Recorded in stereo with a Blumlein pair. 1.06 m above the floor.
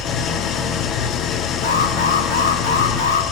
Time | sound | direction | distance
0.0 | an engine running | 25° left | 1.4 m
1.6 | an alarm | 60° left | 3 m